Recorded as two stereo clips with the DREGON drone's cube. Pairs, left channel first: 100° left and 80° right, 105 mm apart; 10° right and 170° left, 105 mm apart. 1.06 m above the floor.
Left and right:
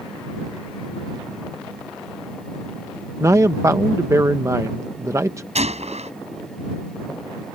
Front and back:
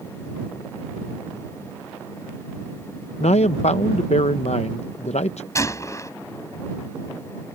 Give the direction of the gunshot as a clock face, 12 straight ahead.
2 o'clock.